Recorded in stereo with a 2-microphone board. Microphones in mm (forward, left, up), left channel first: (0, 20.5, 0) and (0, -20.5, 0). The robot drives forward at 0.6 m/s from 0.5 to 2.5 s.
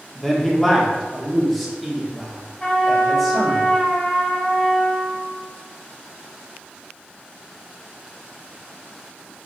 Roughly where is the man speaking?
Centre.